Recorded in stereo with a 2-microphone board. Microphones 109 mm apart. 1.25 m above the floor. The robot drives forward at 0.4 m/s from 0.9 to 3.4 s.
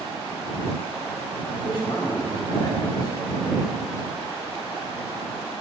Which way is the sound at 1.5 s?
50° left (ahead or behind).